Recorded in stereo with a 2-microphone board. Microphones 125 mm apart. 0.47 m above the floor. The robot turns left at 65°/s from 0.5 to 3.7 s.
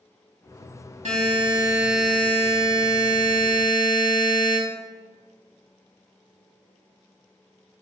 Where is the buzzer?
115° right, 0.8 m; by 4.6 s 70° left, 0.8 m.